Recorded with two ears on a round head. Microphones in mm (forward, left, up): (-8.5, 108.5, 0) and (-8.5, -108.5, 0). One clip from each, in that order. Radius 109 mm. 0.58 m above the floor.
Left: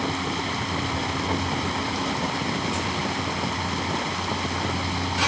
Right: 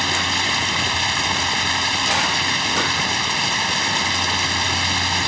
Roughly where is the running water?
Right.